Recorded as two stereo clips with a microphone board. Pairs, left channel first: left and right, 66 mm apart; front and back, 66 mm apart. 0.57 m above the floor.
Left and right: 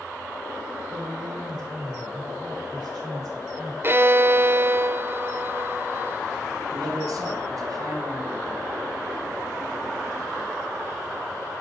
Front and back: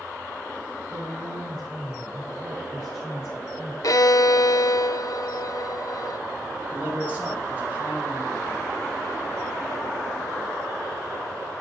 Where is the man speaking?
115° right, 4 m.